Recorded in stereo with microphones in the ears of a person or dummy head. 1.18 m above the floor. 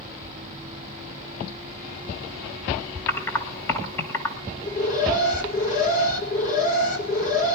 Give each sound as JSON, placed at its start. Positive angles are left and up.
{"t": 3.1, "sound": "typing on a keyboard", "side_deg": 10, "distance_m": 1.6}
{"t": 4.6, "sound": "an alarm", "side_deg": 40, "distance_m": 1.7}